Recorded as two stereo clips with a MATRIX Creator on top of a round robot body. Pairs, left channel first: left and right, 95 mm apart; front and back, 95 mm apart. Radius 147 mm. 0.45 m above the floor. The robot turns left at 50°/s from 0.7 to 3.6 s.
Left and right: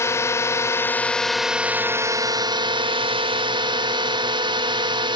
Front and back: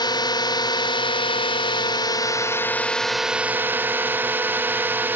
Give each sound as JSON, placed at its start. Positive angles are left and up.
{"t": 0.0, "sound": "a drone", "azimuth_deg": 30}